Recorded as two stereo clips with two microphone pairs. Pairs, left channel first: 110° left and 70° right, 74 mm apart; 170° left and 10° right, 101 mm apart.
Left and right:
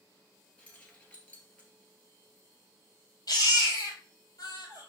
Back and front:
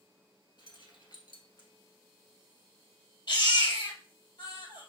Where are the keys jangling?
175° left, 1.3 m.